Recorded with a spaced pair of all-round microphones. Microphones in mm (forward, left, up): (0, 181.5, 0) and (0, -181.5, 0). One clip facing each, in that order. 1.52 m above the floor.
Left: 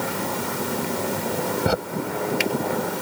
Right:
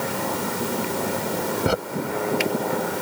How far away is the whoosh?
I don't hear a whoosh.